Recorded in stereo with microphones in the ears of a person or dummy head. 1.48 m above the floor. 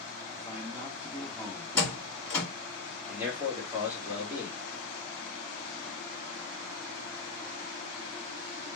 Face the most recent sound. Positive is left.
turn(degrees=-10)  # may be behind; listen again after turning